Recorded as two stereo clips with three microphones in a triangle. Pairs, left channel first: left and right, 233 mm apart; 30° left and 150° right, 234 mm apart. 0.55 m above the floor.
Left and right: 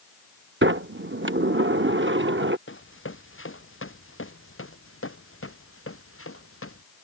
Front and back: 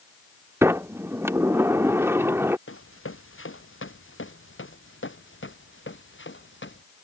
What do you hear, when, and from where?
0.6 s a sliding door: 70° right
2.7 s running footsteps: 60° left; by 6.8 s 65° left